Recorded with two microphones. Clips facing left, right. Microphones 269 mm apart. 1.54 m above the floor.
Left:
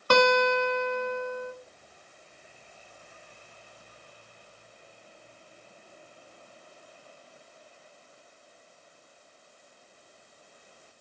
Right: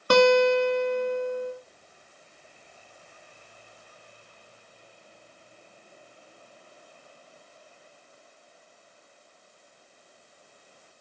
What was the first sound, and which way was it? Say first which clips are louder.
A guitar: right 5 dB; 25° right (ahead or behind).